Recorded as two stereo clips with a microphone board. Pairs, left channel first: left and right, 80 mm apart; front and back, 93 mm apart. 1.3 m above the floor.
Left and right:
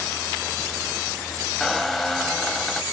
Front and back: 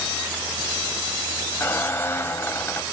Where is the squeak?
5° left, 1.2 m.